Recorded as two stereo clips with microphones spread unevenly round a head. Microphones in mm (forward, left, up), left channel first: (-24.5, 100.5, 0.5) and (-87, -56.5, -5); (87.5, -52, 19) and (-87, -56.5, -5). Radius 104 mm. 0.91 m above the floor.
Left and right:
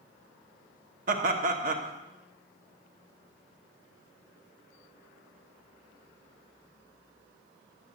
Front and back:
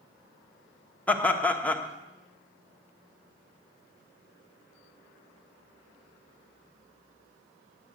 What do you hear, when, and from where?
1.1 s laughter: 85° right, 1.2 m